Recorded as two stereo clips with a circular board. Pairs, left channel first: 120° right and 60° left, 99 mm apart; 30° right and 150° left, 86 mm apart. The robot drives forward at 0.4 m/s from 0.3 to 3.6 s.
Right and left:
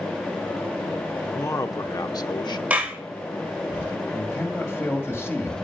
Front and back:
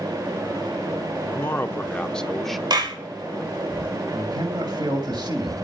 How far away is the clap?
About 2.5 m.